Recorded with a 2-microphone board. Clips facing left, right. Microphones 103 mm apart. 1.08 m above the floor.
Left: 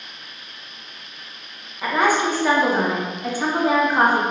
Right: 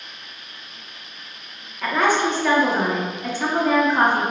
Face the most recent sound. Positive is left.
turn(degrees=10)  # may be behind; listen again after turning